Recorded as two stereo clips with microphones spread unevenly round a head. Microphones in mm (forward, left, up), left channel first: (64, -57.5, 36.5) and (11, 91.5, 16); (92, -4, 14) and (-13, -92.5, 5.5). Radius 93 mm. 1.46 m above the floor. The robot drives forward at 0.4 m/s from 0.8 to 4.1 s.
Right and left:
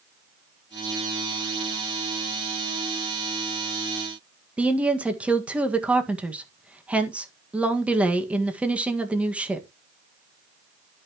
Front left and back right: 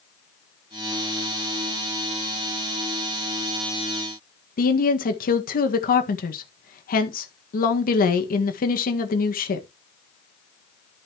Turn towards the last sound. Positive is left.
turn(degrees=25)